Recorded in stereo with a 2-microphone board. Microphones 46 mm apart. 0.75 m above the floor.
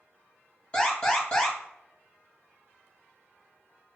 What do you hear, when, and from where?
0.7 s an alarm: 15° left (ahead or behind), 1.6 m